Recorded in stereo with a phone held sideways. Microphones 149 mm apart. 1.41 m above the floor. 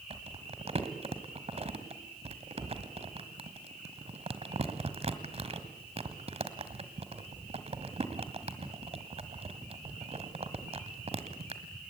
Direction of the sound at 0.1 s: 45° right (ahead or behind).